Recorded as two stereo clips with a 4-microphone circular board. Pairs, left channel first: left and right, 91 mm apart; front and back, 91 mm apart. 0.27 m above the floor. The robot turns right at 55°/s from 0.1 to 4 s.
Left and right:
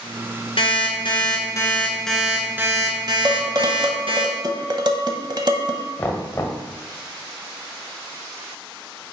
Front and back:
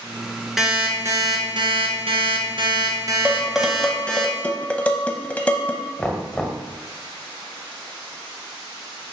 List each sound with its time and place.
0.6 s an alarm clock: 95° left, 1.6 m; by 4.2 s 80° right, 1.6 m
3.2 s dishes clattering: 115° right, 0.9 m; by 5.8 s 70° right, 0.9 m
6.0 s knocking: 70° left, 1.3 m